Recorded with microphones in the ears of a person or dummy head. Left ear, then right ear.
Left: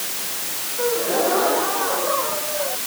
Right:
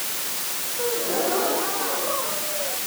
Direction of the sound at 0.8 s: 15° left (ahead or behind).